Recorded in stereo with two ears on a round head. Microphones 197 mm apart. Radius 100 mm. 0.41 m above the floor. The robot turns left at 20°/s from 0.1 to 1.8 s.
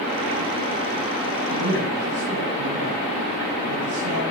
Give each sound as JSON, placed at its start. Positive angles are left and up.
{"t": 1.5, "sound": "a man speaking", "side_deg": -80, "distance_m": 7.0}